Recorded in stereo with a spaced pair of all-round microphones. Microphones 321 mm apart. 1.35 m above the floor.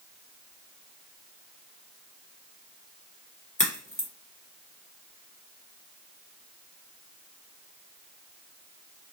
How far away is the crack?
About 1.9 m.